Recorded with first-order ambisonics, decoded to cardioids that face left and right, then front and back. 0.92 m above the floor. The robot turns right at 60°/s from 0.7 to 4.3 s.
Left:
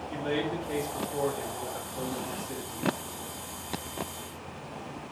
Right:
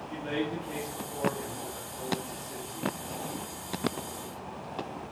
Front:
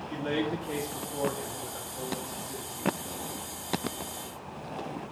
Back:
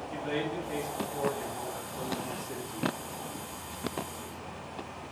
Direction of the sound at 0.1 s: 5° left.